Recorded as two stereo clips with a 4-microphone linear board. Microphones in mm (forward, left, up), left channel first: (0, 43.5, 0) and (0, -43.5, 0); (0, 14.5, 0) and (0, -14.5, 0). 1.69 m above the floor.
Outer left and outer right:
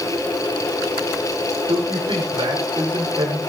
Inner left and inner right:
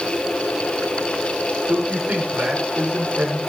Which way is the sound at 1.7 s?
75° right (ahead or behind).